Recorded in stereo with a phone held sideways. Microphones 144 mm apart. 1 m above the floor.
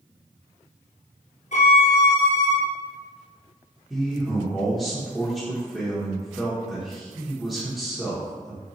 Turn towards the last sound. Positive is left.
turn(degrees=-5)  # may be behind; listen again after turning